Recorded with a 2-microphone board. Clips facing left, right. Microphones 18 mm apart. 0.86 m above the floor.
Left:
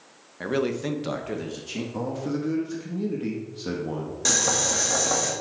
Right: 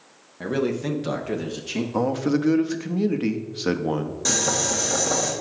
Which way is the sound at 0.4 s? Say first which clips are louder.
Right 1 dB; 10° left (ahead or behind).